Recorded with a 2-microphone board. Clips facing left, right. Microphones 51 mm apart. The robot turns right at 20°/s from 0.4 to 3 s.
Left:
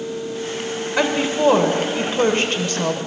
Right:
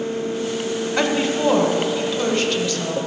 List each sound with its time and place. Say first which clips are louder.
1.0 s a woman speaking: left 2 dB; straight ahead, 1.2 m; by 3.0 s 40° left, 1.2 m